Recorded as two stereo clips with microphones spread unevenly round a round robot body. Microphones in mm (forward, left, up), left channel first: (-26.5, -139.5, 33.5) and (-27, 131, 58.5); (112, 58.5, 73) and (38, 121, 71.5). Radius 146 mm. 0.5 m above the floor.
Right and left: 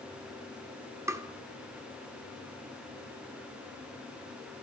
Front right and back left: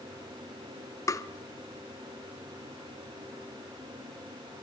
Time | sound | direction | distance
1.1 | tapping | 10° left | 1.1 m